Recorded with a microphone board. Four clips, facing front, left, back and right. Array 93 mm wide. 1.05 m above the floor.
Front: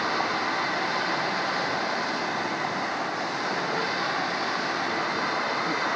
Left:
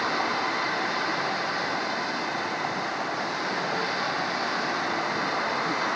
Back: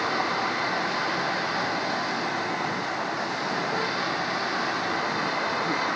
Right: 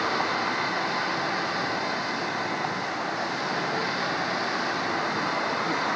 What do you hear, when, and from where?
Only background noise.